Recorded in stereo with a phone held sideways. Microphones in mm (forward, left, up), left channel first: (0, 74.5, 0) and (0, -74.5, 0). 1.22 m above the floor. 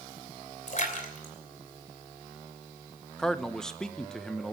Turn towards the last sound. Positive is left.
turn(degrees=5)  # may be behind; listen again after turning